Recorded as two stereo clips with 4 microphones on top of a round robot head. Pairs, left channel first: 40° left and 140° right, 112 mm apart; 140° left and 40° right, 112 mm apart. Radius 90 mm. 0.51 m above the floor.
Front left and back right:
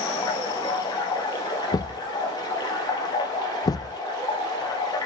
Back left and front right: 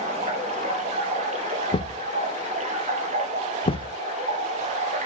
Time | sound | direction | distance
0.0 | running water | 15° right | 2.5 m
1.7 | a thud | 100° left | 0.5 m